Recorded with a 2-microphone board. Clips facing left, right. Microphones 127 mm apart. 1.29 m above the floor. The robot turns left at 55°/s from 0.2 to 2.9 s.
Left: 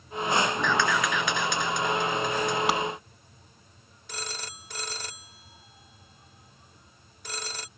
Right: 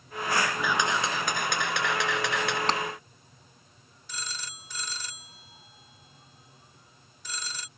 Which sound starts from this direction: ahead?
A camera shutter, at 0.6 s.